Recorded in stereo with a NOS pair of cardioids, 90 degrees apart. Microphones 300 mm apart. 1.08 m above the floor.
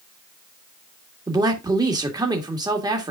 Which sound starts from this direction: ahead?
A man speaking, at 1.3 s.